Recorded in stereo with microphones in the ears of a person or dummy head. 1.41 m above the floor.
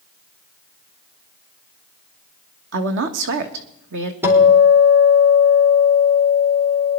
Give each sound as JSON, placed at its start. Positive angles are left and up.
{"t": 2.7, "sound": "a woman speaking", "side_deg": -65, "distance_m": 1.4}
{"t": 4.2, "sound": "a guitar", "side_deg": -15, "distance_m": 3.0}